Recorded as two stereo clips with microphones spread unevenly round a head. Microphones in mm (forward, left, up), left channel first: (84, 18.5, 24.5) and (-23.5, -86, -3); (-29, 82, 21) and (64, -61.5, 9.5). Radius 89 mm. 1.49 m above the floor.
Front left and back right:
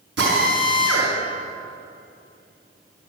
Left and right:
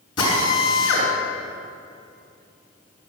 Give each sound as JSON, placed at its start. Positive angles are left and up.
{"t": 0.2, "sound": "a drill", "azimuth_deg": -170, "distance_m": 5.0}